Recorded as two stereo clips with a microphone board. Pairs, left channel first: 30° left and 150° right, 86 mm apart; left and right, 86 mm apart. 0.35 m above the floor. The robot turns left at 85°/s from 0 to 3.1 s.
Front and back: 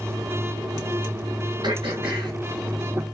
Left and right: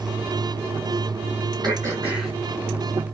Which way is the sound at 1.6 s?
125° right.